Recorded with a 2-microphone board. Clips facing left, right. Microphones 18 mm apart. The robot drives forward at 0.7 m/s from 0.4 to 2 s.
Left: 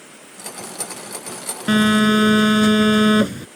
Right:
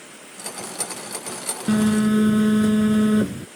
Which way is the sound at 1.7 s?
70° left (ahead or behind).